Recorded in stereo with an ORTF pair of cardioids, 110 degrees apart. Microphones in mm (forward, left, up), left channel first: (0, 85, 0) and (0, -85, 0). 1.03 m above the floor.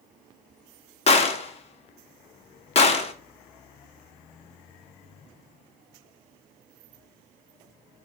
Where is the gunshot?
35° left, 0.6 m.